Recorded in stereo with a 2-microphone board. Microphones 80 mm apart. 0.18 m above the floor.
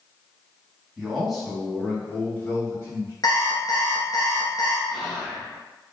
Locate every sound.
1.0 s a man speaking: 10° right (ahead or behind), 1.5 m; by 3.1 s 35° left (ahead or behind), 2.5 m
3.2 s an alarm clock: 50° left (ahead or behind), 1.2 m
4.9 s whispering: 5° left (ahead or behind), 1.4 m